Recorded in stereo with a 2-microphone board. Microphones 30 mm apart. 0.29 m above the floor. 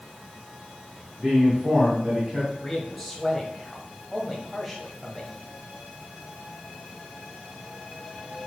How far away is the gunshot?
I don't hear a gunshot.